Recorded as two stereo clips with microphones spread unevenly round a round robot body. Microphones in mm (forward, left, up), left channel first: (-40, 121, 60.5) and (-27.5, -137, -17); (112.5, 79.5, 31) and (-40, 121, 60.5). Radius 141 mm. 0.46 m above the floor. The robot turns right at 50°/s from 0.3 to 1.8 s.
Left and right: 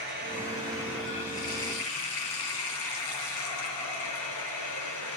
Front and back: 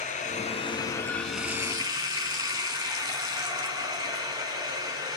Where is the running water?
25° left, 4 m; by 5.2 s 100° left, 4 m.